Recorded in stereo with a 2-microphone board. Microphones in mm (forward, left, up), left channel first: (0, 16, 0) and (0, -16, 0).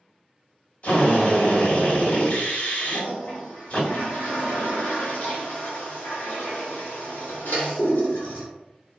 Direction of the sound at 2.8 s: 80° left.